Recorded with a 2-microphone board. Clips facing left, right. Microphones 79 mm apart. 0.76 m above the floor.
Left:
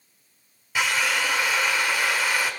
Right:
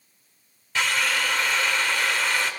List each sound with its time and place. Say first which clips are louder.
0.8 s a drill: left 1 dB; 10° left (ahead or behind), 1.0 m